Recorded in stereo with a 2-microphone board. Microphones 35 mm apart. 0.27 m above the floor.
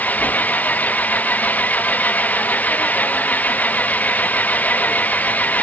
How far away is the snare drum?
I don't hear a snare drum.